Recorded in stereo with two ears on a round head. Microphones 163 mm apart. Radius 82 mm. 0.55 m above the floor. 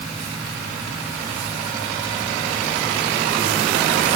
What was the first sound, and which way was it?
Only background noise.